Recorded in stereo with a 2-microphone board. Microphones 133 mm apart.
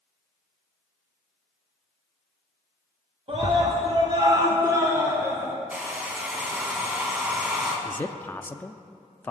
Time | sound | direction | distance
3.3 | a scream | 50° right (ahead or behind) | 1.5 m
5.7 | a hair dryer | 15° right (ahead or behind) | 2.5 m
7.8 | a man speaking | 15° left (ahead or behind) | 0.5 m